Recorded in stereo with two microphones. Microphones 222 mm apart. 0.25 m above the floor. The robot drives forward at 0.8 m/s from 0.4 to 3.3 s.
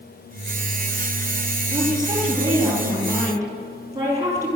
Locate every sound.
1.7 s a woman speaking: 20° right (ahead or behind), 6.5 m; by 4.5 s 15° right (ahead or behind), 7.5 m